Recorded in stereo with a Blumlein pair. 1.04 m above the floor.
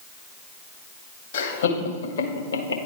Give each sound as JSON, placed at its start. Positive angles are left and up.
{"t": 1.3, "sound": "laughter", "azimuth_deg": 60, "distance_m": 1.8}